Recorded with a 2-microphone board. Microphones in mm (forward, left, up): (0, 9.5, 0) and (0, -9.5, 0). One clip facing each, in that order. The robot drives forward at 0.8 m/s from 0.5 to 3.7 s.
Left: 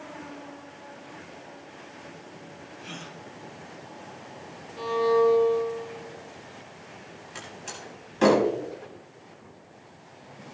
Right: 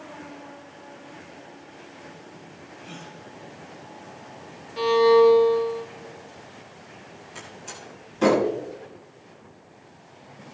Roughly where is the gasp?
Left.